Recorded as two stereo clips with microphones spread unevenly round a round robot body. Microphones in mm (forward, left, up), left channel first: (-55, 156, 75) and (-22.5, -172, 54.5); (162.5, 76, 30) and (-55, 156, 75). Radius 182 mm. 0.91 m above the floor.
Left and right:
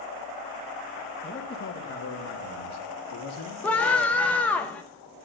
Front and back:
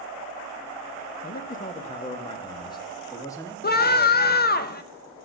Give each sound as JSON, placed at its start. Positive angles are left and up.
{"t": 1.2, "sound": "a man speaking", "azimuth_deg": 25, "distance_m": 0.9}
{"t": 3.6, "sound": "a scream", "azimuth_deg": 10, "distance_m": 0.9}